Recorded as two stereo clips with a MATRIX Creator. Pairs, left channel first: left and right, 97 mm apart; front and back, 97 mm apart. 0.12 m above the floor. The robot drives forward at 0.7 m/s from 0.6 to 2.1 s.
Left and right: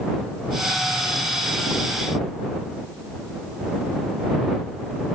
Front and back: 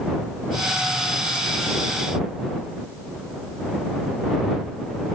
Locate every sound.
Only background noise.